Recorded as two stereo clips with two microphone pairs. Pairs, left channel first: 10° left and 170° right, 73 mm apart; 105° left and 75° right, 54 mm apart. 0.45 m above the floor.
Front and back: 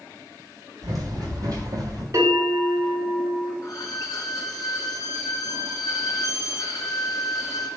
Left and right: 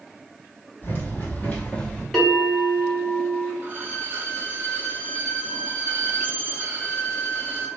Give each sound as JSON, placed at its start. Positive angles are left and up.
{"t": 0.8, "sound": "running footsteps", "azimuth_deg": 155, "distance_m": 1.3}
{"t": 2.1, "sound": "a bell", "azimuth_deg": -170, "distance_m": 1.7}
{"t": 3.6, "sound": "a violin", "azimuth_deg": -20, "distance_m": 0.7}